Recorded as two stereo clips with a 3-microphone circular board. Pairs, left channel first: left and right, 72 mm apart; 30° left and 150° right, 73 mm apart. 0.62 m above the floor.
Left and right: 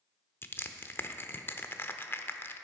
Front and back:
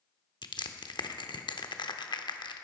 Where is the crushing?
30° left, 0.6 m.